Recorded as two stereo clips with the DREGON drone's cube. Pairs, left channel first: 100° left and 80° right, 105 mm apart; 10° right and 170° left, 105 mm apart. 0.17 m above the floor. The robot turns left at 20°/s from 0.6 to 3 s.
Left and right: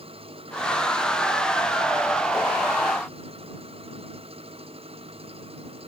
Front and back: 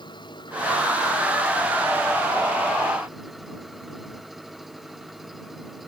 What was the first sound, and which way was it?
An engine running, 55° right.